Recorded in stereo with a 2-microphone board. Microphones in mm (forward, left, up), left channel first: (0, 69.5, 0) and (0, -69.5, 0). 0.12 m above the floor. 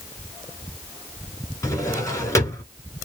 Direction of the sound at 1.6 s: 25° left (ahead or behind).